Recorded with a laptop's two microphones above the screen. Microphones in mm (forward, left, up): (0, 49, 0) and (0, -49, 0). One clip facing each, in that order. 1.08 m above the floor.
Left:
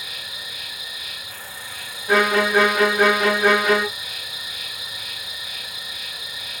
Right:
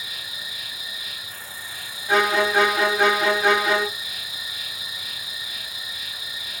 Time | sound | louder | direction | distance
0.0 | an insect | left 1 dB | 65° left (ahead or behind) | 1.3 m
2.1 | a violin | left 2 dB | 45° left (ahead or behind) | 2 m